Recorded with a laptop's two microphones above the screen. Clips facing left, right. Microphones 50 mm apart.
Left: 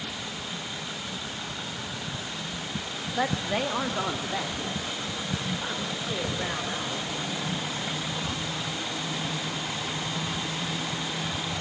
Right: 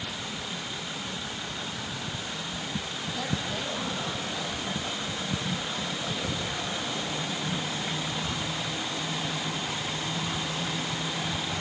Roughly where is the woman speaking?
Left.